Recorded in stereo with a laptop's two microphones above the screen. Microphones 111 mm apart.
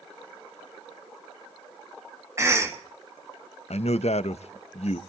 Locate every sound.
2.4 s a cough: 25° right (ahead or behind), 1.1 m
3.7 s a man speaking: 70° left (ahead or behind), 0.5 m